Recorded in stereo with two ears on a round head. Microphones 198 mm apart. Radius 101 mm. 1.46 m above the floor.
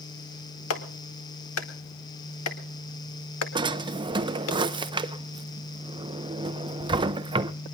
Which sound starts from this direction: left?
A clap, at 0.7 s.